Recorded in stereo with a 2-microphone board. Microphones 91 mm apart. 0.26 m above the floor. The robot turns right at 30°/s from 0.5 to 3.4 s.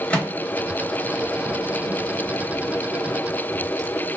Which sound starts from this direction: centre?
A microwave, at 0.1 s.